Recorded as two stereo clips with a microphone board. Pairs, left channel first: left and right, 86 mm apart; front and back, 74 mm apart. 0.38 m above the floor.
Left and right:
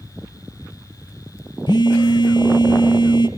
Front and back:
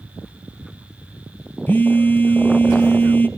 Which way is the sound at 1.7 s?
65° left.